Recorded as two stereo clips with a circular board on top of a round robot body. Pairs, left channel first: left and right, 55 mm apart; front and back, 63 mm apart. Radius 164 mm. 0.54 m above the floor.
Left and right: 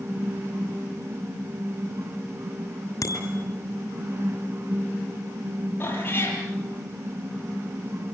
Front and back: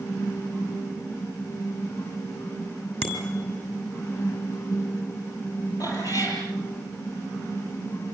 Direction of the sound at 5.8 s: 35° left.